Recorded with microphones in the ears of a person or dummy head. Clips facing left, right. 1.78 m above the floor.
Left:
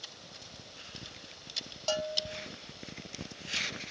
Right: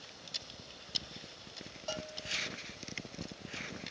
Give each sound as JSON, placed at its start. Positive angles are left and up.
{"t": 1.9, "sound": "a bell", "side_deg": 60, "distance_m": 0.5}